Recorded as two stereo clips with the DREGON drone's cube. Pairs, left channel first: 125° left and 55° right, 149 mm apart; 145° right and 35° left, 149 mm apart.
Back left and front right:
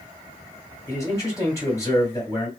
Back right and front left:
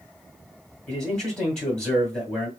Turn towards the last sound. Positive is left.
turn(degrees=140)